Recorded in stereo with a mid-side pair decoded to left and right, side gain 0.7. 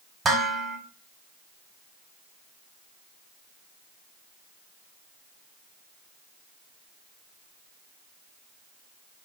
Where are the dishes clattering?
20° right, 2.0 m.